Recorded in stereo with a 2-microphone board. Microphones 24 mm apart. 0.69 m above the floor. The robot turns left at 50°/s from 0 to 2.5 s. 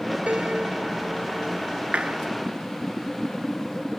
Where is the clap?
55° right (ahead or behind); by 2.2 s 65° right (ahead or behind).